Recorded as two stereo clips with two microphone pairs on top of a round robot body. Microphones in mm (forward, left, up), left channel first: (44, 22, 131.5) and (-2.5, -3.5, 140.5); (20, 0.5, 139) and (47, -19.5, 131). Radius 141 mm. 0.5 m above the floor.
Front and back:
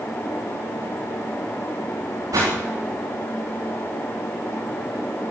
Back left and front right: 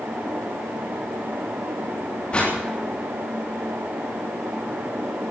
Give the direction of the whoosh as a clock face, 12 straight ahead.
5 o'clock.